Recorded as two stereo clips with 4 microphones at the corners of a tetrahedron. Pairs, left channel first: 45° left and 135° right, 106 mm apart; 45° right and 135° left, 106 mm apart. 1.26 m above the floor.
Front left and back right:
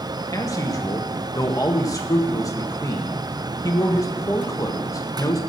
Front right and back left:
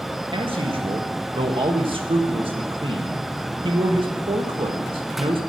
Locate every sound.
0.3 s a man speaking: 100° left, 1.6 m